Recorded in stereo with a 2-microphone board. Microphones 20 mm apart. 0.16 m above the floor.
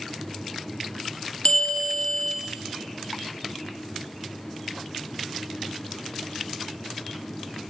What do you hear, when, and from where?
1.4 s a bell: 65° left (ahead or behind), 2.5 m